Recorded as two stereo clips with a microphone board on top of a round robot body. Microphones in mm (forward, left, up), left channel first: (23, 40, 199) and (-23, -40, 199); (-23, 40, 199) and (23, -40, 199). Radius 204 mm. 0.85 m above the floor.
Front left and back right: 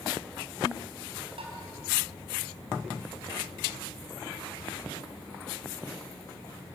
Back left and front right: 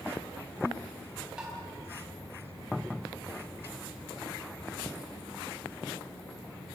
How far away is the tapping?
About 4.5 m.